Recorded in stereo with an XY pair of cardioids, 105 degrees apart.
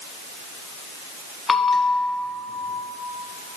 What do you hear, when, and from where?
1.5 s a bell: 30° left, 0.8 m